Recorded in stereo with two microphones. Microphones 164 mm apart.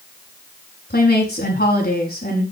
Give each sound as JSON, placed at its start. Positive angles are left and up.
{"t": 0.9, "sound": "a woman speaking", "side_deg": 75, "distance_m": 6.5}